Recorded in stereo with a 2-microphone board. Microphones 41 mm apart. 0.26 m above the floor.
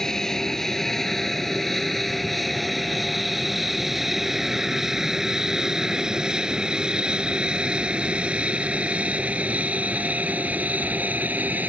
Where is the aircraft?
15° left (ahead or behind); by 11.7 s 45° right (ahead or behind).